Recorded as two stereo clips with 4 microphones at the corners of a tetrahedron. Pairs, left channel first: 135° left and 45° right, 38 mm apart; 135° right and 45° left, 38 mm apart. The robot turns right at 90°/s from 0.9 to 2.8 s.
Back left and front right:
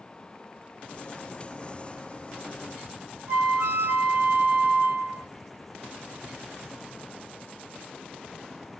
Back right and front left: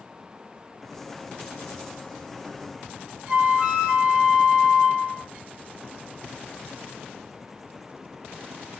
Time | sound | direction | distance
3.3 | a flute | 20° right | 1.6 m